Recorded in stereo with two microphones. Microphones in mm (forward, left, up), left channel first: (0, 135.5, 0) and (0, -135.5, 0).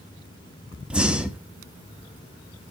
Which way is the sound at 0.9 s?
5° right (ahead or behind).